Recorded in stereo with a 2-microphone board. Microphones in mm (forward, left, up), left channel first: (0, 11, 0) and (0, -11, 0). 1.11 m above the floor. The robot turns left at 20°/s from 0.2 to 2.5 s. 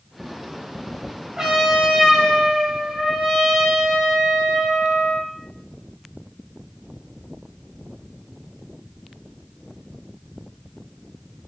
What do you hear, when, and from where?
1.4 s a trumpet: 35° right (ahead or behind), 1.1 m; by 5.3 s 40° right (ahead or behind), 1.1 m